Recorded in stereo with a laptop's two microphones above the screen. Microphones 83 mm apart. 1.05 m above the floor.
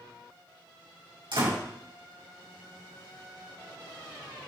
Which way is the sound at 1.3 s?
75° right (ahead or behind).